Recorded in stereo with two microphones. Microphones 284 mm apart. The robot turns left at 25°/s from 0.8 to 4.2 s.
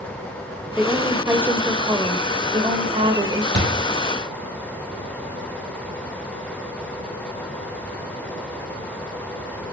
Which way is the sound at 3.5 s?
40° right (ahead or behind).